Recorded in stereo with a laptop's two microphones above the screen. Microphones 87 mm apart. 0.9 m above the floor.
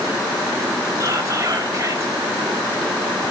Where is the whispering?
40° right (ahead or behind), 6 m.